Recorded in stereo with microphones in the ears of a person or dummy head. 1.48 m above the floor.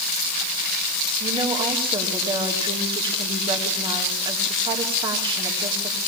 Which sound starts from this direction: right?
A woman speaking, at 1.2 s.